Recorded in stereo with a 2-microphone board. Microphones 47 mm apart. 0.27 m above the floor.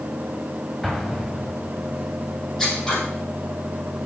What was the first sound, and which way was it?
An explosion, 5° left (ahead or behind).